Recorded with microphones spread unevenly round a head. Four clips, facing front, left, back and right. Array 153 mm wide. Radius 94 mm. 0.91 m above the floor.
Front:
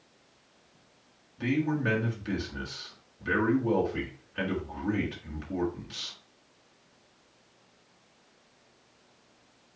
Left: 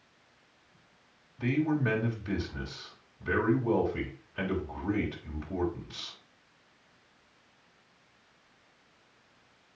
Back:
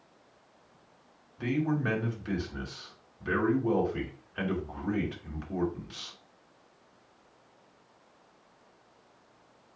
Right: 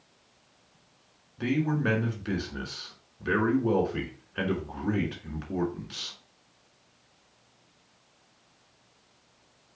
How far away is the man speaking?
About 4.5 m.